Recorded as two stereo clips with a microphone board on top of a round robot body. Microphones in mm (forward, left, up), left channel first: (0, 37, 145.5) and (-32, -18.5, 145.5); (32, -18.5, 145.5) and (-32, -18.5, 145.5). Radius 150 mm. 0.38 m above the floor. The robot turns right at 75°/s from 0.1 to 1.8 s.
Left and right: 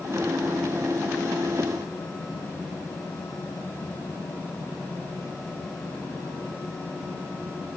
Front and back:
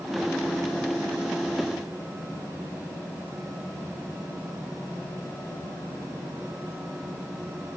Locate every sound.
Only background noise.